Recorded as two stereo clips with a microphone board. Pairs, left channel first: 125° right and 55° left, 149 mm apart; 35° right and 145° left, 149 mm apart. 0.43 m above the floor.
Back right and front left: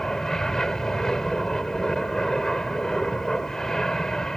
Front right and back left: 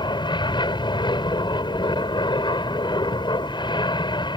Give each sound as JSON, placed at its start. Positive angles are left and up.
{"t": 0.0, "sound": "an aircraft", "azimuth_deg": -40}